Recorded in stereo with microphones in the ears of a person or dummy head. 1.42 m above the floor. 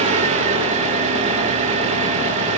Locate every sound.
0.0 s an engine running: 35° right (ahead or behind), 1.0 m